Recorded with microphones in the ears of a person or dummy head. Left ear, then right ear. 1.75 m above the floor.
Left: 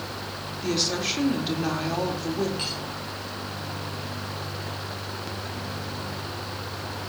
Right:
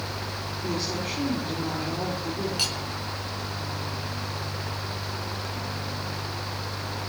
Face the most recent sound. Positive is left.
turn(degrees=-45)  # may be behind; listen again after turning